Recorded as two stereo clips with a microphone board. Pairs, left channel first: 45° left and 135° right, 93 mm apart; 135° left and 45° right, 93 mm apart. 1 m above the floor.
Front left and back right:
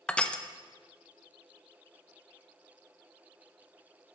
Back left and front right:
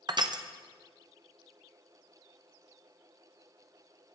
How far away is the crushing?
About 0.7 m.